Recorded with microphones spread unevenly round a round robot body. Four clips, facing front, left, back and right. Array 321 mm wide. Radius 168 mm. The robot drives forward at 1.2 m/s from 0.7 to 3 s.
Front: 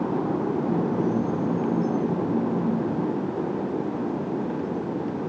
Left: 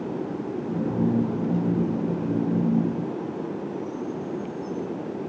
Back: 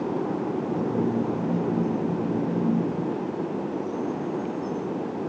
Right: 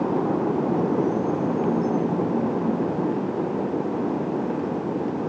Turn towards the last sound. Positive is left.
No sound to turn to.